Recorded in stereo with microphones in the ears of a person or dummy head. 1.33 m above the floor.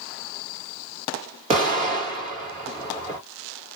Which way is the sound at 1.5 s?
25° right (ahead or behind).